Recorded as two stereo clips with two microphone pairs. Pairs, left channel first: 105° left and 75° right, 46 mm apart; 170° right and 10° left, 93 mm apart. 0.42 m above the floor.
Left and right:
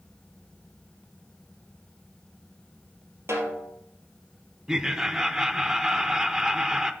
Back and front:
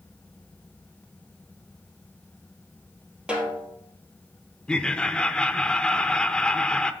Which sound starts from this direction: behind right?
Laughter, at 4.7 s.